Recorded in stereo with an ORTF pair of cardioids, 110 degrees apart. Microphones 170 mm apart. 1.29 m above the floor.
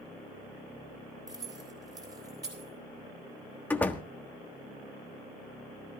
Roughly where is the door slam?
Ahead.